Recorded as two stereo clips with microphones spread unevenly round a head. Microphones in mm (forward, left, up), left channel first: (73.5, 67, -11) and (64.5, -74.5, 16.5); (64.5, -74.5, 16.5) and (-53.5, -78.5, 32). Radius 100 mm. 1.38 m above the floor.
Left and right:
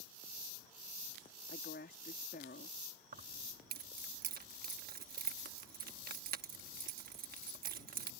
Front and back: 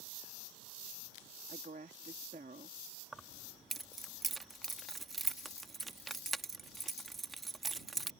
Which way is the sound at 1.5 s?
130° left.